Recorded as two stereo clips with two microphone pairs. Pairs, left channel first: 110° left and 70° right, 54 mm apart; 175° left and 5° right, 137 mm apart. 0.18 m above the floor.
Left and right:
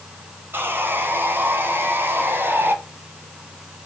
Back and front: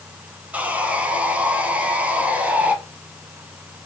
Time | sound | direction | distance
0.5 | sawing | 80° right | 1.5 m